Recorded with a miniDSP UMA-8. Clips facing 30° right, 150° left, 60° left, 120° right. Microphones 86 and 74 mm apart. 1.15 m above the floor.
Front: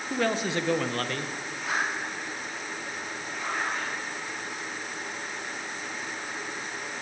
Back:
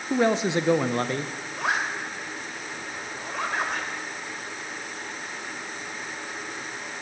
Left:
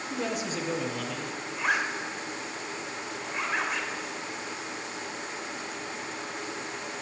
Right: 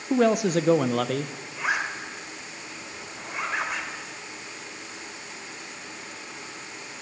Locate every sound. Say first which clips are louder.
0.1 s a man speaking: back 5 dB, right 12 dB; 145° right, 0.6 m
1.6 s a zipper: back 3 dB, right 1 dB; 155° left, 3 m